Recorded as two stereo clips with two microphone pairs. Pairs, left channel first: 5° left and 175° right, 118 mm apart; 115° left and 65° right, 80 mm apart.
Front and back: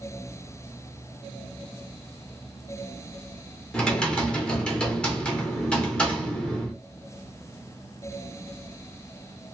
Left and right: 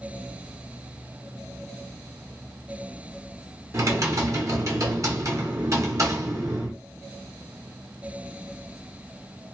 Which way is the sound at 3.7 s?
75° right.